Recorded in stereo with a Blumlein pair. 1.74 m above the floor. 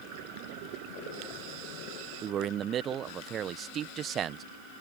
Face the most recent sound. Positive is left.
turn(degrees=-25)